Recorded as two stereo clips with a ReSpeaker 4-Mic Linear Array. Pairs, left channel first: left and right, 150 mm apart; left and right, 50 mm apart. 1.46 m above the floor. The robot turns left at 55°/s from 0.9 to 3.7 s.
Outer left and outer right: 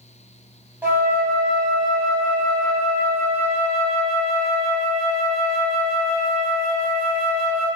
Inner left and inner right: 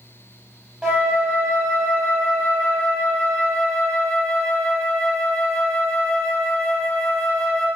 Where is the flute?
25° right, 0.8 m; by 7.7 s straight behind, 0.8 m.